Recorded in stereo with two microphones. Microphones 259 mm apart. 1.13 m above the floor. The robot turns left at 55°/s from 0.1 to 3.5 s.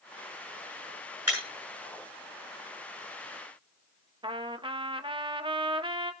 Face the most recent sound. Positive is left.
turn(degrees=-20)  # may be behind; listen again after turning